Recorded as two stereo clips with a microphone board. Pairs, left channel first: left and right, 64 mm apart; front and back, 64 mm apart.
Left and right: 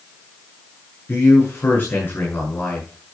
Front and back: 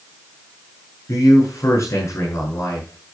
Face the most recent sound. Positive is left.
turn(degrees=35)